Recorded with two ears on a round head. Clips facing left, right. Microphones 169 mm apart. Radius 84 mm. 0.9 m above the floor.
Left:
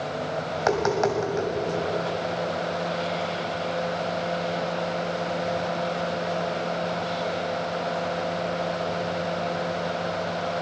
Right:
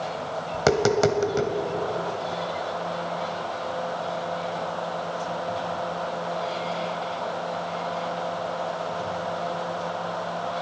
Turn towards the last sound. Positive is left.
turn(degrees=-40)  # may be behind; listen again after turning